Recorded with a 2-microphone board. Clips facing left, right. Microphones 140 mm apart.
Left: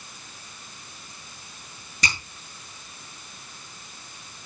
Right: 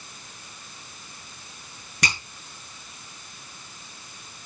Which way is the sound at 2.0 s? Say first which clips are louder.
Right 1 dB; 75° right (ahead or behind).